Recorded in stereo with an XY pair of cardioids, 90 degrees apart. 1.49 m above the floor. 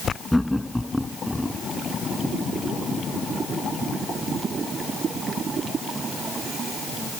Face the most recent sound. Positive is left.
turn(degrees=5)